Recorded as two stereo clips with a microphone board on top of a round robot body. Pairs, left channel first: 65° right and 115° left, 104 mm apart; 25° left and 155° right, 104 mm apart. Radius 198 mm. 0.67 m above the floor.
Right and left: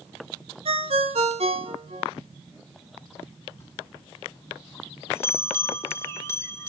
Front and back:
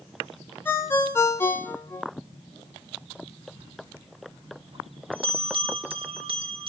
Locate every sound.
0.7 s a ringtone: 95° left, 1.3 m
3.6 s a bell: 130° right, 1.5 m